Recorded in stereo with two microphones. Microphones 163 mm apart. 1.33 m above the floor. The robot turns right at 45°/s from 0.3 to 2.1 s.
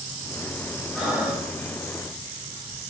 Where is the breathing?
5° left (ahead or behind), 5.5 m; by 1.5 s 20° right (ahead or behind), 5.5 m.